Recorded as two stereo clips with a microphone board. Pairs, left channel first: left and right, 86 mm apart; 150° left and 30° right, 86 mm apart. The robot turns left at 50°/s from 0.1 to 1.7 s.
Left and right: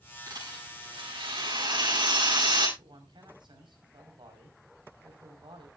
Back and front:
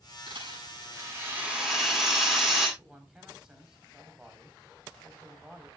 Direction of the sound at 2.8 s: 110° right.